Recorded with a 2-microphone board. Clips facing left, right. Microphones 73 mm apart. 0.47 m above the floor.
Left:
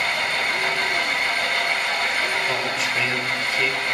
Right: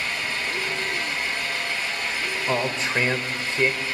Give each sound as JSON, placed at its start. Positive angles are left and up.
{"t": 0.0, "sound": "an engine running", "side_deg": 65, "distance_m": 2.5}
{"t": 2.5, "sound": "a man speaking", "side_deg": -30, "distance_m": 2.0}